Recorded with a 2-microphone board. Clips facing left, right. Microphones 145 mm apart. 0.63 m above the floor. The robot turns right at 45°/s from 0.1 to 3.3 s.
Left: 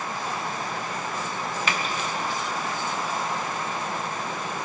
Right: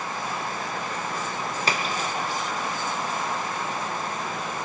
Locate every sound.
1.7 s a splash: 35° right (ahead or behind), 1.0 m